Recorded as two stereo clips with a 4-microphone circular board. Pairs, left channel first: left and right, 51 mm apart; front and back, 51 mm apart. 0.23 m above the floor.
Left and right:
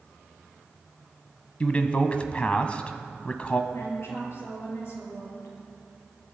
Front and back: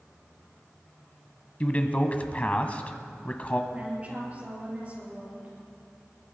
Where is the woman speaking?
115° left, 5 m.